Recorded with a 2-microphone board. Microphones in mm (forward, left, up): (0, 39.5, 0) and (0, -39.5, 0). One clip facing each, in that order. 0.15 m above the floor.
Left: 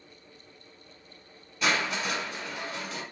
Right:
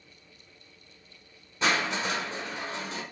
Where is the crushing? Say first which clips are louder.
Right 1 dB; 30° right (ahead or behind), 1.0 m.